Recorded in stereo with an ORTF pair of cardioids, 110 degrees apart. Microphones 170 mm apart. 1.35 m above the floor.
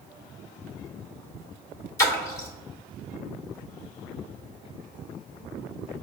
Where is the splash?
20° left, 1.7 m.